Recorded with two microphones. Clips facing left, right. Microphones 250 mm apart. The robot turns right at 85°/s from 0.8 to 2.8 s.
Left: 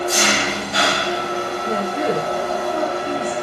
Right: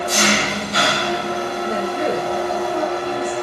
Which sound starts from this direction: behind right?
An engine running, at 0.0 s.